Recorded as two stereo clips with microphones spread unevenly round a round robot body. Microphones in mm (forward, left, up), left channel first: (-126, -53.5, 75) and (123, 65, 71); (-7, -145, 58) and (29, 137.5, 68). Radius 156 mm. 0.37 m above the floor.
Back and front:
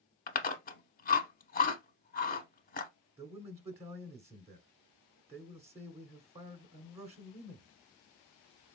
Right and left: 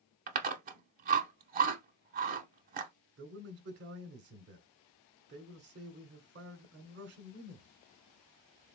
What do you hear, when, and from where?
0.3 s chewing: 145° left, 0.5 m
3.2 s a man speaking: 100° left, 1.1 m